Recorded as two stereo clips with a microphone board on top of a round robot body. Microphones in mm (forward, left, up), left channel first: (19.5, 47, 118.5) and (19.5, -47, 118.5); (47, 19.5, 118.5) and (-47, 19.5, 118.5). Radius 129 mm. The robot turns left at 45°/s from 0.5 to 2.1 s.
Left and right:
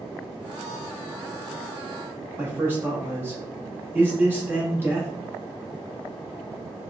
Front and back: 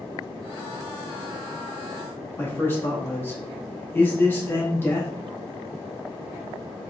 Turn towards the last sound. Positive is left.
turn(degrees=-45)